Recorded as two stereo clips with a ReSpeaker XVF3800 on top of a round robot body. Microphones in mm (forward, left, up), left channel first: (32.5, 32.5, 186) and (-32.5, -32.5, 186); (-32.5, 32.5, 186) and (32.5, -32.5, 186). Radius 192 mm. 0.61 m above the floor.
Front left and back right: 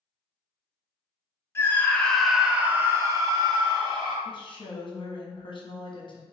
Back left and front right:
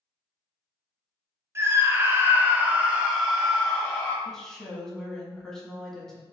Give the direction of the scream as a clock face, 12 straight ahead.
12 o'clock.